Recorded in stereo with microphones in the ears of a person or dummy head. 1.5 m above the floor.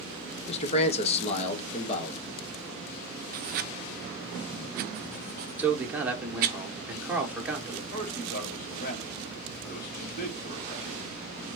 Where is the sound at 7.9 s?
50° left (ahead or behind), 2.5 m.